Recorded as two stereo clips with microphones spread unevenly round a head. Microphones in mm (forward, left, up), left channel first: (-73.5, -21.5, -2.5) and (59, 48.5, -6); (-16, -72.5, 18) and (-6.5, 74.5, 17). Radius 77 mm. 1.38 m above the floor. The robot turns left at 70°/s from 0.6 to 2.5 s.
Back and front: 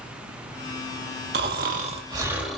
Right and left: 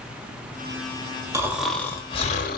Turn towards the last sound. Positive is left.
turn(degrees=-60)